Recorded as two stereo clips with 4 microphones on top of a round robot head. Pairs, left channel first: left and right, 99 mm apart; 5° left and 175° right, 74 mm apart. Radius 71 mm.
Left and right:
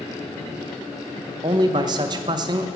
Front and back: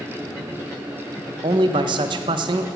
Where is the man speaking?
145° right, 0.7 m.